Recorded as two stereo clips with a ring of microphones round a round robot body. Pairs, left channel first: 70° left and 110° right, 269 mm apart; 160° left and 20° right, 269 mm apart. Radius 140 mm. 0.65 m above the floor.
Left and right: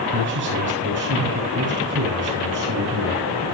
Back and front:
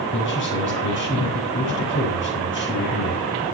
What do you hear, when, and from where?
0.1 s a man speaking: 155° right, 8 m